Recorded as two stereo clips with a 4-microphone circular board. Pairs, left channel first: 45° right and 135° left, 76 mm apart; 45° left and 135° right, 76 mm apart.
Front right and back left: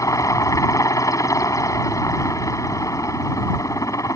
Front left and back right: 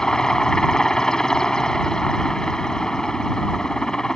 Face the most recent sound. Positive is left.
turn(degrees=-35)